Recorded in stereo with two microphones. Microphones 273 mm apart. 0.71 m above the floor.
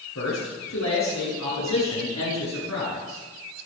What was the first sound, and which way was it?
A man speaking, 75° left (ahead or behind).